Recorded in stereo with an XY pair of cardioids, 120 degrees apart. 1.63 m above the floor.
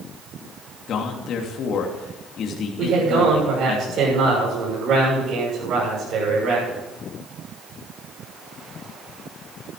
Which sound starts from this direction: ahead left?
A man speaking, at 0.9 s.